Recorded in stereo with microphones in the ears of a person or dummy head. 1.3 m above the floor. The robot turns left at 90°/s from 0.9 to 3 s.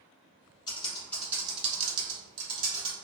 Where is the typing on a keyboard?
25° left (ahead or behind), 0.7 m; by 2.9 s 20° right (ahead or behind), 0.7 m.